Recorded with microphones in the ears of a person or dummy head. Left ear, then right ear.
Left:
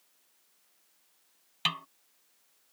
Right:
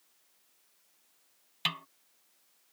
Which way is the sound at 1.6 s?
5° left (ahead or behind).